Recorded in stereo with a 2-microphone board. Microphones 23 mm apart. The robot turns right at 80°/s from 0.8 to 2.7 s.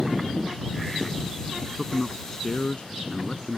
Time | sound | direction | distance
1.6 | a man speaking | 45° right | ?